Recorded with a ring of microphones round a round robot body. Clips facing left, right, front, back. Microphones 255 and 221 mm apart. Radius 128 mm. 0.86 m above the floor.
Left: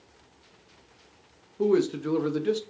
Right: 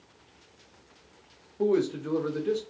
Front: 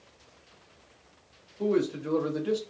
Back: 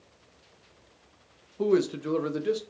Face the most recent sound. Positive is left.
turn(degrees=110)